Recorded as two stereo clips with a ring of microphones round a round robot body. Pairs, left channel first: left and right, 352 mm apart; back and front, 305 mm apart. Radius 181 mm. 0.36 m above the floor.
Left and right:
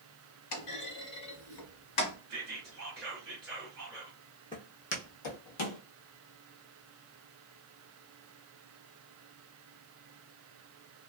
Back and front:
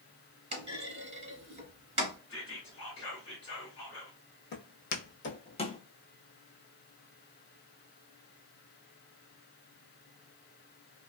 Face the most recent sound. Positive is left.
turn(degrees=100)